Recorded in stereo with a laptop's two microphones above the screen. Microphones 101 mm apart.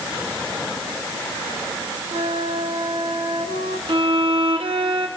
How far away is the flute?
About 3.5 m.